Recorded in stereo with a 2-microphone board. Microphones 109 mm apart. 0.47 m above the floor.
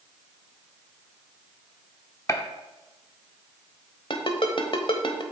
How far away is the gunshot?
About 0.7 m.